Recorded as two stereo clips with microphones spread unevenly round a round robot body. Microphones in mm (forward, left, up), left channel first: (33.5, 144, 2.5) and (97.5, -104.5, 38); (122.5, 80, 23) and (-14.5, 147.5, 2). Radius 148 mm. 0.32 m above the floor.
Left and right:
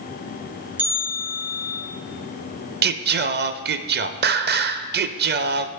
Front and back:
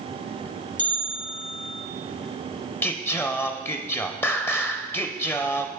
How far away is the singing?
About 0.5 m.